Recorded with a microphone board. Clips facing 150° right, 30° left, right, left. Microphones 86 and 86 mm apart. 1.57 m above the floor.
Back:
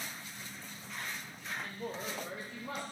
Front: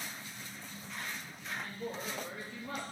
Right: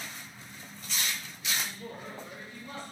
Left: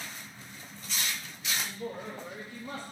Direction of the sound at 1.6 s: 145° left.